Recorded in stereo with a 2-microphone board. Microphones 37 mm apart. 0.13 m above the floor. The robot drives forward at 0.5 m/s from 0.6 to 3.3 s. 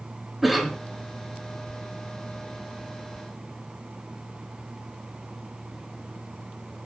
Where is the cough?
5° right (ahead or behind), 1.3 m.